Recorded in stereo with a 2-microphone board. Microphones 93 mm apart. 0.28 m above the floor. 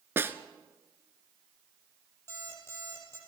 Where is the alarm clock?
25° left (ahead or behind), 6 m.